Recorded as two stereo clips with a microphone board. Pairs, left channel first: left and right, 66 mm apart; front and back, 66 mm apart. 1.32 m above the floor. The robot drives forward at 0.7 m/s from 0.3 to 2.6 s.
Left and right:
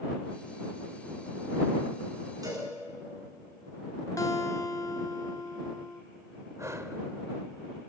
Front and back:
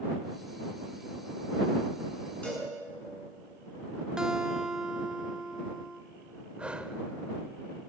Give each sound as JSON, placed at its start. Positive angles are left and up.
{"t": 2.4, "sound": "a cowbell", "azimuth_deg": -70, "distance_m": 9.0}
{"t": 4.2, "sound": "a guitar", "azimuth_deg": 105, "distance_m": 1.5}
{"t": 6.6, "sound": "breathing", "azimuth_deg": -110, "distance_m": 1.5}